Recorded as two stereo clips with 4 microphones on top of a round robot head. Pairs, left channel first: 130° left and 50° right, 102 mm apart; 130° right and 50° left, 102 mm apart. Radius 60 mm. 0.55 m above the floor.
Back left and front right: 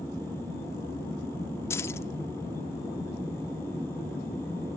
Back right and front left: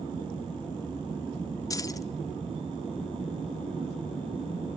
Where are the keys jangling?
175° right, 0.7 m.